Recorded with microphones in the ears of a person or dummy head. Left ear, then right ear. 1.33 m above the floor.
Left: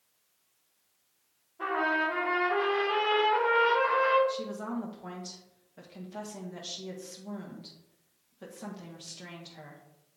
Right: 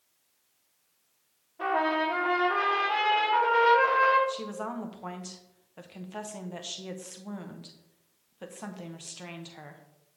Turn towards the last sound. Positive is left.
turn(degrees=-30)  # may be behind; listen again after turning